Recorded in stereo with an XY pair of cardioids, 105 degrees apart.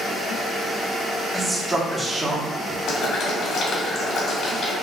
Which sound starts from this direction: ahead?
A man speaking, at 1.3 s.